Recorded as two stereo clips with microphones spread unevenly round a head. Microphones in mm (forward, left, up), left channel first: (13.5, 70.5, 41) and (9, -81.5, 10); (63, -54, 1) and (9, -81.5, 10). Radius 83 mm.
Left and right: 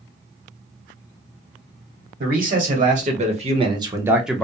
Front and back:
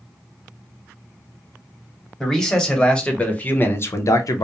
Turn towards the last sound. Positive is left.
turn(degrees=5)